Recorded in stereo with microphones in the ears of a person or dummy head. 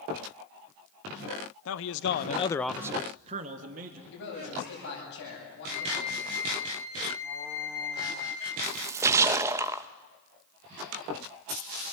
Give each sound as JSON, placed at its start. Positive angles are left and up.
{"t": 1.6, "sound": "a man speaking", "side_deg": 80, "distance_m": 1.5}
{"t": 4.1, "sound": "a man speaking", "side_deg": 70, "distance_m": 9.5}
{"t": 5.7, "sound": "a flute", "side_deg": 40, "distance_m": 8.5}
{"t": 8.6, "sound": "a splash", "side_deg": -10, "distance_m": 0.6}